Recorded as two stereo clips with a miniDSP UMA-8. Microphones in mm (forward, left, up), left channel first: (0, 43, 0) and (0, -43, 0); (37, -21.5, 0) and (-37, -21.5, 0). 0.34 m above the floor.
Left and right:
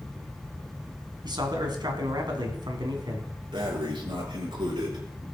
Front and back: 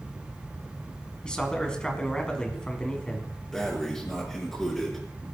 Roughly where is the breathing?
Right.